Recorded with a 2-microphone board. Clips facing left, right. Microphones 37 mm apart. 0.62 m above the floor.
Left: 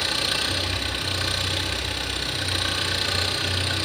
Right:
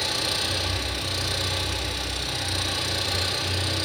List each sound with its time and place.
0.0 s an engine running: 45° left (ahead or behind), 6.5 m